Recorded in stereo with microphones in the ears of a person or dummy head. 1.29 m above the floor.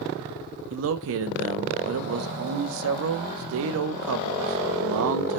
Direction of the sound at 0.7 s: 65° right (ahead or behind).